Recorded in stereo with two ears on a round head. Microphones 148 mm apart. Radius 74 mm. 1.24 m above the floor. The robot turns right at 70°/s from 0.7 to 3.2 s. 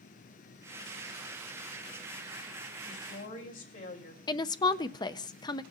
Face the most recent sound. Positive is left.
turn(degrees=25)  # may be behind; listen again after turning